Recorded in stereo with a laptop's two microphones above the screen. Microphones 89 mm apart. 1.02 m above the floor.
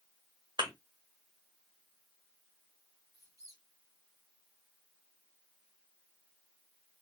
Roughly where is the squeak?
Right.